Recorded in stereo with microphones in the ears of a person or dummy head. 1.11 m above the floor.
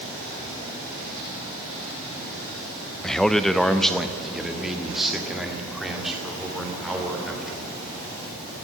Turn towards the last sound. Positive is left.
turn(degrees=0)  # may be behind; listen again after turning